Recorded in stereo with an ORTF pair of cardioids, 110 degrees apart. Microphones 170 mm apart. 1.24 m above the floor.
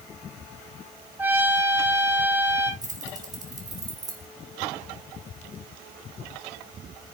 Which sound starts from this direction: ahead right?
Keys jangling, at 2.8 s.